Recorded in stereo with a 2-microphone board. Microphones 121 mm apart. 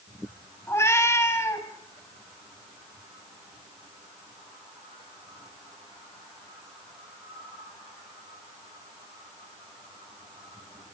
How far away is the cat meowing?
About 2.5 m.